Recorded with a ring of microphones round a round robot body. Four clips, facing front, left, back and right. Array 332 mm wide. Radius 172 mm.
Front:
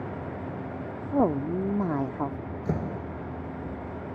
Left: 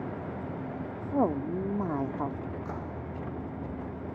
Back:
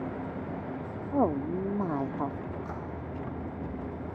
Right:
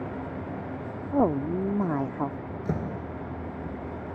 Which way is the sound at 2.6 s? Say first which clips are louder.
Right 6 dB, front 6 dB; 45° right.